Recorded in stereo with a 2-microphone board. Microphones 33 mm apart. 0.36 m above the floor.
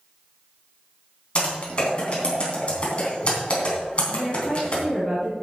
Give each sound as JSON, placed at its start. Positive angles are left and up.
{"t": 1.4, "sound": "typing on a keyboard", "side_deg": 35, "distance_m": 3.0}
{"t": 4.1, "sound": "a woman speaking", "side_deg": 5, "distance_m": 4.0}